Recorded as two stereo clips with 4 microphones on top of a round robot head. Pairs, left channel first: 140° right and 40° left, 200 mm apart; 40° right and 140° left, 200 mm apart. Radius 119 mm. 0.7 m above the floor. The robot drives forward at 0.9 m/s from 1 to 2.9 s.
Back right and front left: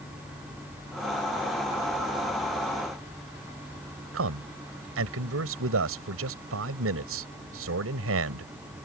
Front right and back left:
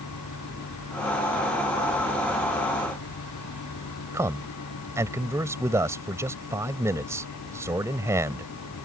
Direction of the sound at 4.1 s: 60° left.